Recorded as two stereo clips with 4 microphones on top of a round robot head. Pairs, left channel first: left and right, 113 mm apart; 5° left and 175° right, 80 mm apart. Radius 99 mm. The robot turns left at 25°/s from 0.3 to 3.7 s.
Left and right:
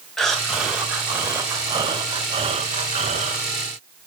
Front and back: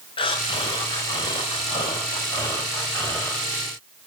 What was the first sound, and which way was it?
Breathing, 5° left.